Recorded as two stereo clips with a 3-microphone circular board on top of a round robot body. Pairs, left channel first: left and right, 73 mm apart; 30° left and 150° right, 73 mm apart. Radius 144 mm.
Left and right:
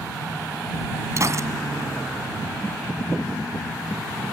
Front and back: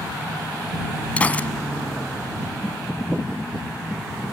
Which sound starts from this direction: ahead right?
A gunshot, at 1.2 s.